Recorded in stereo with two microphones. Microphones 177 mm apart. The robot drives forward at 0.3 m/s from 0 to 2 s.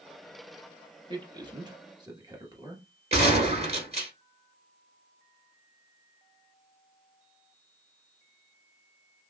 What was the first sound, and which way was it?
A man speaking, 25° right (ahead or behind).